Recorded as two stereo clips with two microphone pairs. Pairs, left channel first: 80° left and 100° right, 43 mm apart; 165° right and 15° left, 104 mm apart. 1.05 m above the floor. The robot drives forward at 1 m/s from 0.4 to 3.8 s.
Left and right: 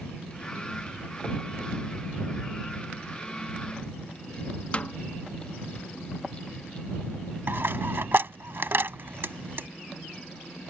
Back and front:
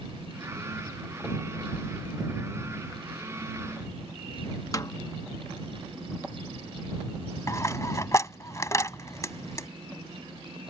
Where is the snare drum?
140° left.